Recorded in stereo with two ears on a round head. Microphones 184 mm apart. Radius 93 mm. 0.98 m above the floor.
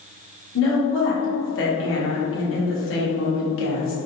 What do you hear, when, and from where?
0.6 s a woman speaking: 70° left (ahead or behind), 1.3 m